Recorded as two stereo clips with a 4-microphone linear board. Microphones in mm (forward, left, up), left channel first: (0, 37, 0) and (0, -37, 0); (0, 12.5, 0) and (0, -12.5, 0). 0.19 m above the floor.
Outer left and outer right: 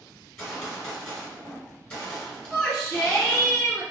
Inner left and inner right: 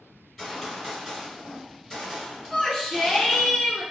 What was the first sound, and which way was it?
A gunshot, 15° left (ahead or behind).